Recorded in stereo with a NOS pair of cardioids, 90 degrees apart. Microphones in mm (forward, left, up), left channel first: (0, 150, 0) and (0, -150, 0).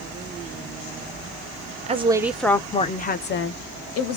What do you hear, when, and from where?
1.9 s a woman speaking: 25° right, 0.7 m; by 4.2 s 55° left, 1.2 m